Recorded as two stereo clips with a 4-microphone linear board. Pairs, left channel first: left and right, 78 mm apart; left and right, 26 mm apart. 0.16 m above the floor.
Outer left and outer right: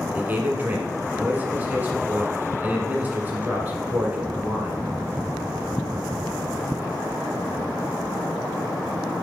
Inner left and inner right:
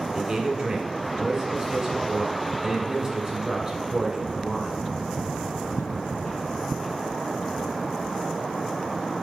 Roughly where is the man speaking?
Right.